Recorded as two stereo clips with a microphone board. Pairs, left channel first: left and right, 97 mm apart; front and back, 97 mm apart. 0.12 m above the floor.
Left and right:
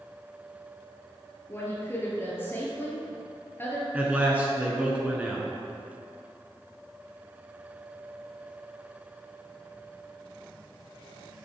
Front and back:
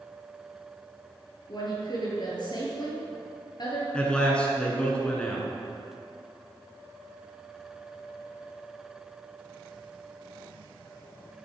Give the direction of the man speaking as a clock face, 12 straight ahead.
2 o'clock.